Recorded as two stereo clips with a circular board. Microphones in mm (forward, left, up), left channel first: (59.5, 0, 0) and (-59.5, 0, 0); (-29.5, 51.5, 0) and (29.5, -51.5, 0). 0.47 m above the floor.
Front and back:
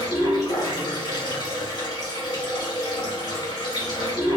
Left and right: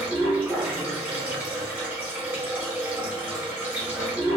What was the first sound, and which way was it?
Running water, straight ahead.